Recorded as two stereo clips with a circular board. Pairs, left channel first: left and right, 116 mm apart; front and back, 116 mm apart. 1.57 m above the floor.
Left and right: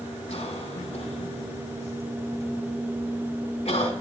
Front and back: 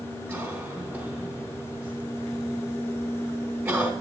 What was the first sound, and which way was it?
A cough, 110° left.